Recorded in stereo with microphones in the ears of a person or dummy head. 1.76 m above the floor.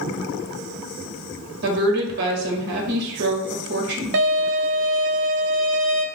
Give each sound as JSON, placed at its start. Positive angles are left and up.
{"t": 1.6, "sound": "a woman speaking", "side_deg": -65, "distance_m": 1.4}
{"t": 4.1, "sound": "a violin", "side_deg": -65, "distance_m": 0.6}